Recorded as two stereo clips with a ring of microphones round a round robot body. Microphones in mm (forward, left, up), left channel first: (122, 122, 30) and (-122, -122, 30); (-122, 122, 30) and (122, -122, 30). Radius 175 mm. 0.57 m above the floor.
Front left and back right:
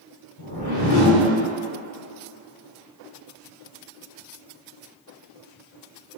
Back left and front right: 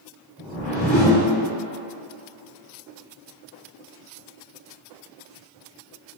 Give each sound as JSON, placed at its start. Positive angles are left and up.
{"t": 0.4, "sound": "a whoosh", "azimuth_deg": 50, "distance_m": 1.7}